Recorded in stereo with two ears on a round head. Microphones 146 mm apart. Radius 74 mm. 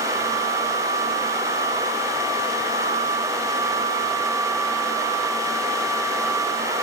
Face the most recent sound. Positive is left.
No sound to turn to.